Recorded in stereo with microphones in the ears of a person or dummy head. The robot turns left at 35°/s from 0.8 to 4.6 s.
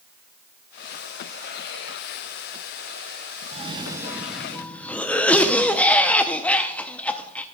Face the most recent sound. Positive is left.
turn(degrees=170)